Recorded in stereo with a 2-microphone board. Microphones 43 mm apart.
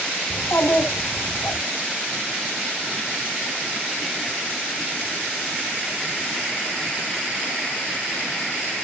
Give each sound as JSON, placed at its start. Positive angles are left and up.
{"t": 0.3, "sound": "a child speaking", "side_deg": 65, "distance_m": 2.5}